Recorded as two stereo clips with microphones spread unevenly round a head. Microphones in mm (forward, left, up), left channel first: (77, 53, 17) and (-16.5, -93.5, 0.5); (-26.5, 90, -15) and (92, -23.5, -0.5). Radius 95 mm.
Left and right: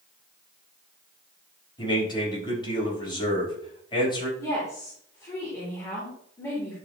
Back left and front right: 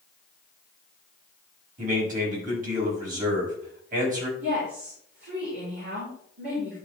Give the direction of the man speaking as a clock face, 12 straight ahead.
12 o'clock.